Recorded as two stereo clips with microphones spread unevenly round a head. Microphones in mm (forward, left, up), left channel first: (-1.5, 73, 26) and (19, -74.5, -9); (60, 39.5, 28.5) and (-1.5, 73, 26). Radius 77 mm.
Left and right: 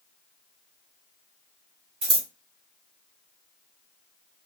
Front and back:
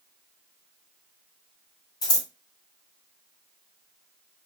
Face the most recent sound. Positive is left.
turn(degrees=-25)